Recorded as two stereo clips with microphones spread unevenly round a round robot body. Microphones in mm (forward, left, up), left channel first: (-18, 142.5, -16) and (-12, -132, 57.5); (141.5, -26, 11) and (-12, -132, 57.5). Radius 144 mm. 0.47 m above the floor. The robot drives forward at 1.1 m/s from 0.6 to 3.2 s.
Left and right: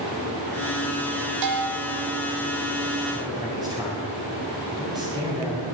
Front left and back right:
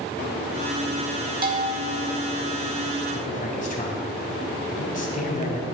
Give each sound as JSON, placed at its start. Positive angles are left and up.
{"t": 1.4, "sound": "a bell", "azimuth_deg": -100, "distance_m": 1.8}
{"t": 3.1, "sound": "a man speaking", "azimuth_deg": -10, "distance_m": 3.5}